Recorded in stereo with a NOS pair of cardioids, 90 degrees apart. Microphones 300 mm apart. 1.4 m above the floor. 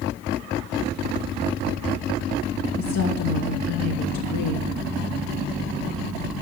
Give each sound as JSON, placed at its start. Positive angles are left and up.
{"t": 2.8, "sound": "a woman speaking", "azimuth_deg": 60, "distance_m": 3.0}